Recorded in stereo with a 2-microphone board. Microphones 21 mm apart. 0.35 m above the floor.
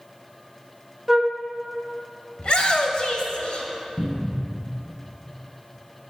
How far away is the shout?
About 1.4 m.